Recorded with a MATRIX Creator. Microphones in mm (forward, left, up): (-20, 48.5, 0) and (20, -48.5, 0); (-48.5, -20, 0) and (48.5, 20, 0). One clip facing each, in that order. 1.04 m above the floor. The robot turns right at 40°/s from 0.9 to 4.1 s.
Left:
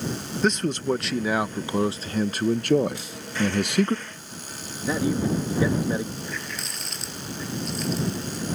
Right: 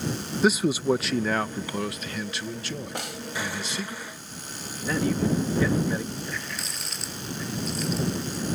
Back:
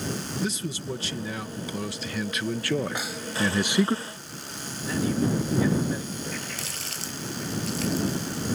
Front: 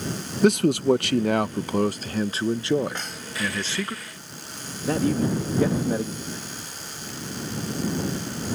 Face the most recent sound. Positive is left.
turn(degrees=-155)